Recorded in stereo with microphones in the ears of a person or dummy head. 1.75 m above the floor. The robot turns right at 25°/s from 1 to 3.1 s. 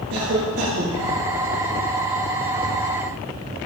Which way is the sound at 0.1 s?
75° right (ahead or behind).